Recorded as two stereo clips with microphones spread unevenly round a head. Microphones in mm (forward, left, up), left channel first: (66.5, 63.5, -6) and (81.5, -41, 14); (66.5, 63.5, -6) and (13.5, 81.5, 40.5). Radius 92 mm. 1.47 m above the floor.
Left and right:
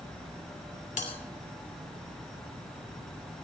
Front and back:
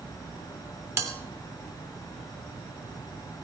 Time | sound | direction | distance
1.0 | a bell | 140° left | 2.5 m